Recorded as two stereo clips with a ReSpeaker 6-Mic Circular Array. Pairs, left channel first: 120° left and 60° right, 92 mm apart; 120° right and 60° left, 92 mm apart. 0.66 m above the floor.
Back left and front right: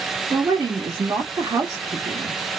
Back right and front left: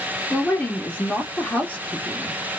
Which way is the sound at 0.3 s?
55° right.